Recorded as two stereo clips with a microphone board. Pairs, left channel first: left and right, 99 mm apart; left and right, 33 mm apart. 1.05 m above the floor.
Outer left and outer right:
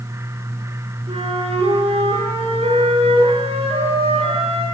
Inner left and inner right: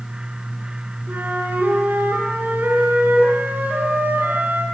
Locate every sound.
1.1 s a flute: 85° right, 8 m